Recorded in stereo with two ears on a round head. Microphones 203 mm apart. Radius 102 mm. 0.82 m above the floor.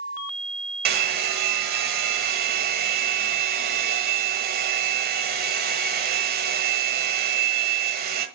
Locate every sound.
0.8 s a hair dryer: 45° right (ahead or behind), 1.3 m